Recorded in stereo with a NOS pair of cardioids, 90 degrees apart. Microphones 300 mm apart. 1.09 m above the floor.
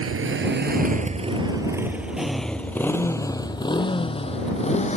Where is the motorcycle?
50° right; by 5.0 s 25° left.